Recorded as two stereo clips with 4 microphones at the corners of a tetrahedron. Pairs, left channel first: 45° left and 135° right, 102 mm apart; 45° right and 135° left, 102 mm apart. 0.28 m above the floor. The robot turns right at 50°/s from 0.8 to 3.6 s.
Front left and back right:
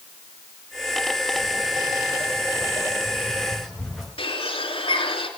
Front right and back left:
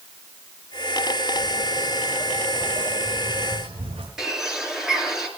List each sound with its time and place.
1.4 s footsteps: 10° left, 7.5 m; by 4.1 s 135° left, 5.5 m
4.2 s a bird: 50° left, 3 m